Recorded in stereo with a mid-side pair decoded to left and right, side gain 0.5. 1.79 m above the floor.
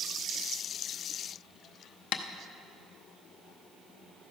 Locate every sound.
2.1 s tapping: 70° left, 0.7 m